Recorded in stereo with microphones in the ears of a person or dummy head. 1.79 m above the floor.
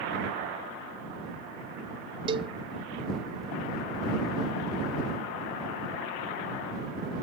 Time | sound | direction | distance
2.3 | a cowbell | 35° right (ahead or behind) | ?